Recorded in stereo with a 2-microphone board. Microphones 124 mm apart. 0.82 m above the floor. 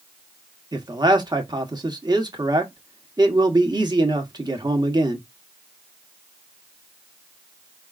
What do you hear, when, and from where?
0.7 s a man speaking: 35° right (ahead or behind), 1.1 m